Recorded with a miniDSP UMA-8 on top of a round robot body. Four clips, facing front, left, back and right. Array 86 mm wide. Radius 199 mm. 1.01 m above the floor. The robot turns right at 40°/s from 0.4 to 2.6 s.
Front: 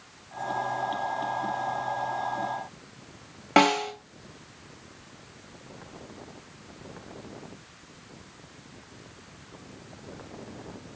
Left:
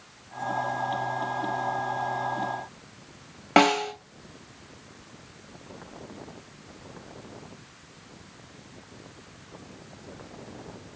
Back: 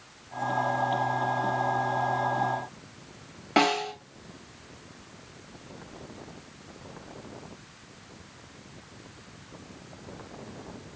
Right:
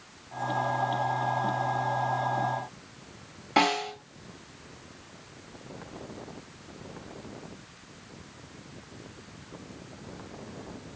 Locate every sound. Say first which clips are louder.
3.6 s a snare drum: left 5 dB, front 3 dB; 65° left, 1.8 m